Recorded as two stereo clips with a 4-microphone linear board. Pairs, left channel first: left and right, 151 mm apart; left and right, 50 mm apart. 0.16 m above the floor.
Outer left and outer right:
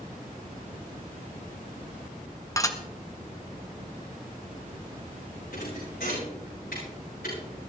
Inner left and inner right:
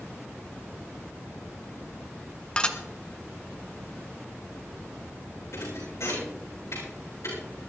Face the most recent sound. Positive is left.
turn(degrees=80)